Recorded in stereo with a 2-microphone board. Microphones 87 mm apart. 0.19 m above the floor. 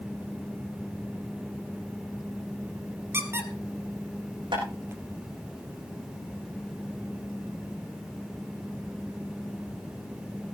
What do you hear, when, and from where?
3.1 s a squeak: 30° right (ahead or behind), 2 m
4.5 s tapping: 70° right (ahead or behind), 10 m